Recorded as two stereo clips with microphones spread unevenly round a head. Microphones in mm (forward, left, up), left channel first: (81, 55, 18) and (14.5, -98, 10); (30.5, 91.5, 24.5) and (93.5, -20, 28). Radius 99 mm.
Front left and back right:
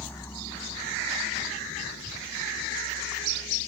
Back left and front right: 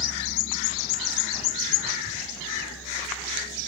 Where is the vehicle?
150° left; by 3.7 s 110° left.